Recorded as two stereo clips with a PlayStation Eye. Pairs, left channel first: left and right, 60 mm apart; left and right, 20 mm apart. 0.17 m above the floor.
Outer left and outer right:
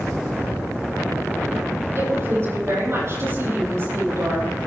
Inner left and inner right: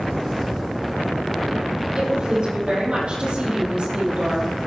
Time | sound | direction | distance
1.9 | a woman speaking | 50° right (ahead or behind) | 6.5 m